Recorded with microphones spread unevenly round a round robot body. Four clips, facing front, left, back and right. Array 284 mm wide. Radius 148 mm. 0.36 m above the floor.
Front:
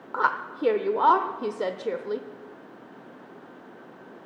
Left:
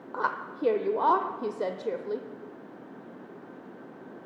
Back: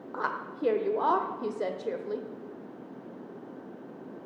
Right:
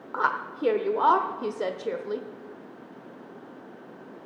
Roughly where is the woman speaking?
Ahead.